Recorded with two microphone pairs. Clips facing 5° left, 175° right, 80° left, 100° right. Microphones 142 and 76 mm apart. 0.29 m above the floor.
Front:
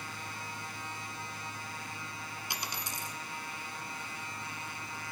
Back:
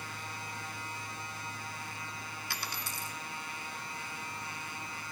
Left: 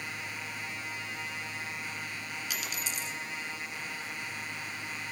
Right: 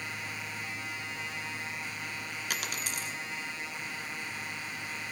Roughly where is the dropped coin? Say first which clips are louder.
Front 1 dB, right 3 dB; ahead right.